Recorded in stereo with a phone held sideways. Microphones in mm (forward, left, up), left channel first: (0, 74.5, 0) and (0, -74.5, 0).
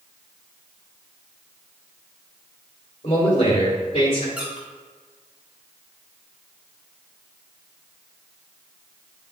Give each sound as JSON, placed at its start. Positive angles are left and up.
{"t": 3.0, "sound": "a man speaking", "side_deg": 45, "distance_m": 3.0}
{"t": 4.4, "sound": "a squeak", "side_deg": -10, "distance_m": 1.9}